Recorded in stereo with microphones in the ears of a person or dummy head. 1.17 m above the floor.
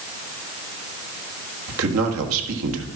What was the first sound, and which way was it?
A man speaking, 80° right.